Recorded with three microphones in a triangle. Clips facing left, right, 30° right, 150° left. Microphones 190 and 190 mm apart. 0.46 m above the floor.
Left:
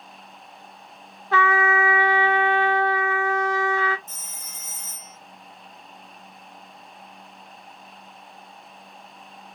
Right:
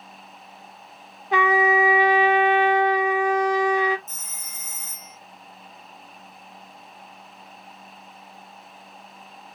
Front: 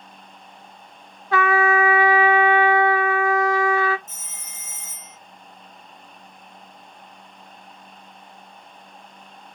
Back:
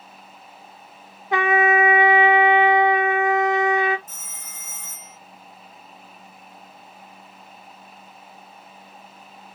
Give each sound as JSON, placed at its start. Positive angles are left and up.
{"t": 1.3, "sound": "a trumpet", "azimuth_deg": -150, "distance_m": 0.6}
{"t": 4.1, "sound": "a phone ringing", "azimuth_deg": 30, "distance_m": 2.0}